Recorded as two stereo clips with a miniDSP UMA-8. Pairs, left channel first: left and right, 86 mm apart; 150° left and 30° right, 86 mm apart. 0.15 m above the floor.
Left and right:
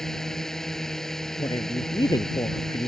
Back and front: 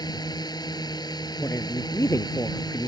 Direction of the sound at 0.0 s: 175° left.